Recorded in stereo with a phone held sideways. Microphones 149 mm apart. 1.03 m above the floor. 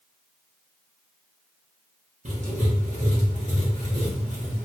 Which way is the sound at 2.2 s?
55° right (ahead or behind).